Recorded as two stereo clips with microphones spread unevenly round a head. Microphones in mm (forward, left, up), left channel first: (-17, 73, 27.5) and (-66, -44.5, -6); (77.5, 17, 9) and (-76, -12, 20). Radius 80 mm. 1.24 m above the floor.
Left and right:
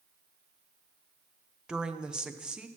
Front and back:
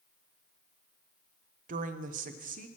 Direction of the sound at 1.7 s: 175° left.